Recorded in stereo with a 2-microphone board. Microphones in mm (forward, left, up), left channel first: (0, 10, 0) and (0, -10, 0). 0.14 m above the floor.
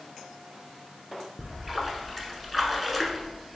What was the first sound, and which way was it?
A splash, 5° left (ahead or behind).